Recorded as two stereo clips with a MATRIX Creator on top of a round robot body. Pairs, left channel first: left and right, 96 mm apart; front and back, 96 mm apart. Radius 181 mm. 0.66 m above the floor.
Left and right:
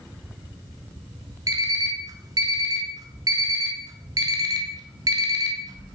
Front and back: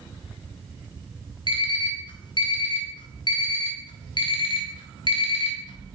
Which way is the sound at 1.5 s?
40° right.